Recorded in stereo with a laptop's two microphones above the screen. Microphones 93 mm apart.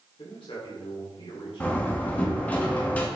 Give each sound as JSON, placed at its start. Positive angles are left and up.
{"t": 0.2, "sound": "a man speaking", "side_deg": 65, "distance_m": 3.0}
{"t": 1.6, "sound": "a door slam", "side_deg": 15, "distance_m": 1.1}